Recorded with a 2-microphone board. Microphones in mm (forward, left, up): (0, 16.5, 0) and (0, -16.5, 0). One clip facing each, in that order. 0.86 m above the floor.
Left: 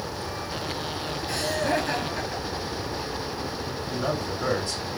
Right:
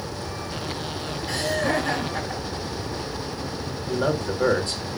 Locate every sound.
1.3 s laughter: 65° right (ahead or behind), 9 m
3.9 s a man speaking: 55° right (ahead or behind), 3 m